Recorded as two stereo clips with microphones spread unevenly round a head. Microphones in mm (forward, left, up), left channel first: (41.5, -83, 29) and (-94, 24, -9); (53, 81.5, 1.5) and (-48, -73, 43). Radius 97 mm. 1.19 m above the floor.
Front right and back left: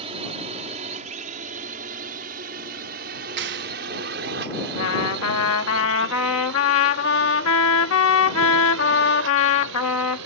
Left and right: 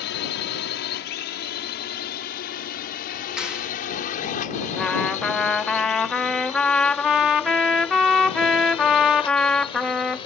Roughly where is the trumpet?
Ahead right.